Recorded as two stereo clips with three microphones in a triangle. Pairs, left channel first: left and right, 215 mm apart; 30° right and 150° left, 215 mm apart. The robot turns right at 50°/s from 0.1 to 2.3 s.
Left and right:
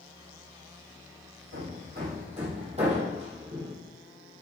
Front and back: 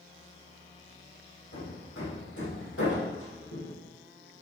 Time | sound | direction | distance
1.5 | hammering | 70° right | 2.5 m